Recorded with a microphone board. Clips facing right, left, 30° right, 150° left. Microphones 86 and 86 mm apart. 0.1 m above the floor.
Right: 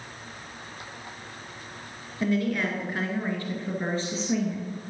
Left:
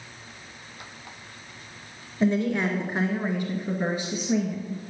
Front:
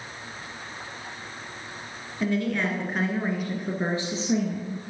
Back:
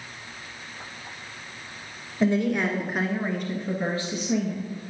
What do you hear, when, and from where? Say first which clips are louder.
2.2 s a woman speaking: left 2 dB, back 3 dB; 120° left, 1.6 m; by 4.8 s 10° left, 2.0 m